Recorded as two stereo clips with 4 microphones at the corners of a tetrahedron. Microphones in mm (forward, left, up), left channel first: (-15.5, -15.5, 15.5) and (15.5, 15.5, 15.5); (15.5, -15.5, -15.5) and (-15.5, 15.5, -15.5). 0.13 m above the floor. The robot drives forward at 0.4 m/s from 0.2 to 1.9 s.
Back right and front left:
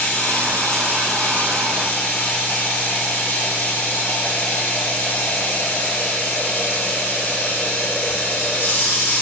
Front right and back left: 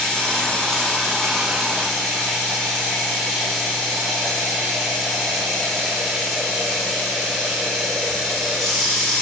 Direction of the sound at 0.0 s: 120° right.